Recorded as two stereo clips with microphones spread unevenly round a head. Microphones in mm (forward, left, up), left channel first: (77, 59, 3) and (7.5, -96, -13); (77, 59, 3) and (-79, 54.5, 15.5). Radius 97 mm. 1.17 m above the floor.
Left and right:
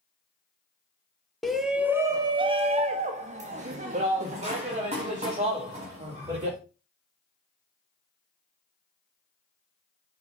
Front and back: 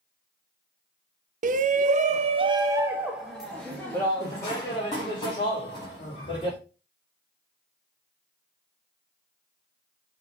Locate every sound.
1.4 s a shout: 160° left, 0.8 m; by 6.6 s 60° right, 2.5 m